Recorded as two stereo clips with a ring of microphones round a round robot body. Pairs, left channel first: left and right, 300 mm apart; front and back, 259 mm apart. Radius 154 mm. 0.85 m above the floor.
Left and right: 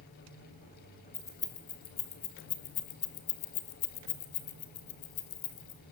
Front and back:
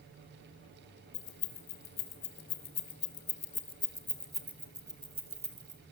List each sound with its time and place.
1.1 s keys jangling: 10° left, 3.5 m; by 5.8 s 120° left, 3 m